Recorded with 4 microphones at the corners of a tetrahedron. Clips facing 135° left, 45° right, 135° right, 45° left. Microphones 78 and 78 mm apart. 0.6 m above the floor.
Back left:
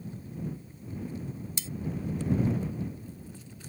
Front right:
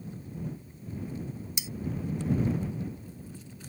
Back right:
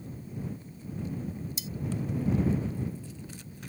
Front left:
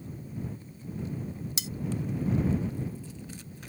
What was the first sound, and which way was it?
Cutlery clinking, 30° left.